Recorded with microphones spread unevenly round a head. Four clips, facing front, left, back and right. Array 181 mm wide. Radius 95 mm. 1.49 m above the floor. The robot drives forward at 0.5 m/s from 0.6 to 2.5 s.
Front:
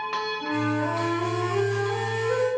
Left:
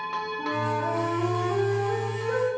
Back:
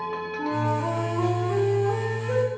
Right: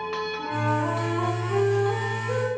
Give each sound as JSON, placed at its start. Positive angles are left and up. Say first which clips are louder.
{"t": 0.4, "sound": "a flute", "louder": "right 1 dB, back 2 dB", "azimuth_deg": 165, "distance_m": 1.7}